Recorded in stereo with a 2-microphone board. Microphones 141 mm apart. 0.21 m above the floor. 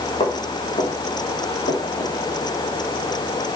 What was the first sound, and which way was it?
Footsteps, 40° left (ahead or behind).